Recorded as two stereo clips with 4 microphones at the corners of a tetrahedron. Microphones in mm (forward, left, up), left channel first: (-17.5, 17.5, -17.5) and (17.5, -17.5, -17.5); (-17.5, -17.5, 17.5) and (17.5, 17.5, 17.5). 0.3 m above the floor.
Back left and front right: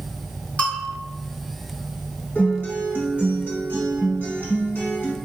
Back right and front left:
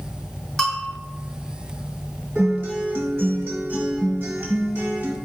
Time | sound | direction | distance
0.6 | a bell | 150° left | 1.1 m
2.4 | a guitar | 80° left | 1.3 m